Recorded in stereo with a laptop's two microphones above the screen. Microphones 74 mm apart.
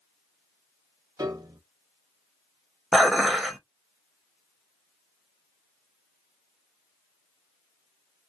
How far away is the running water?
I don't hear running water.